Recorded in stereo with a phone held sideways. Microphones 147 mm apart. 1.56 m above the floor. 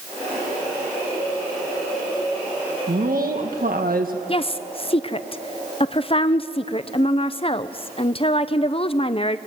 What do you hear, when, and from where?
2.9 s a woman speaking: 75° right (ahead or behind), 1.9 m
4.3 s a woman speaking: 40° left (ahead or behind), 0.7 m